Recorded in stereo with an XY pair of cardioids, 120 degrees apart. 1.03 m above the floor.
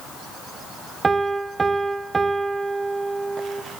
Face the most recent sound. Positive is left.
turn(degrees=-25)